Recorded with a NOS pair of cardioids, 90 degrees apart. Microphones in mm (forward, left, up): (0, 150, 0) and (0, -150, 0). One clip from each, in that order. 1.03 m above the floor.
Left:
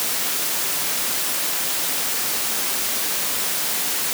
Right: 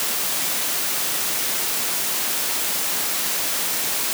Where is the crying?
I don't hear crying.